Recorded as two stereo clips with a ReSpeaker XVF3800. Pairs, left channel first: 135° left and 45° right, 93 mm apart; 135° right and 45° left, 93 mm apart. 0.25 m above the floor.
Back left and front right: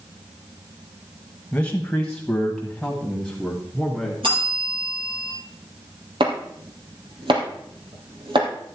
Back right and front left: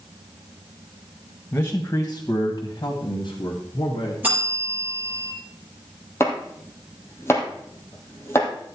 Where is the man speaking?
170° right, 1.3 m; by 4.1 s 125° right, 2.5 m.